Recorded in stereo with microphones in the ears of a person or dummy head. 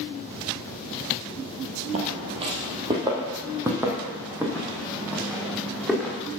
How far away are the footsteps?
About 2.0 m.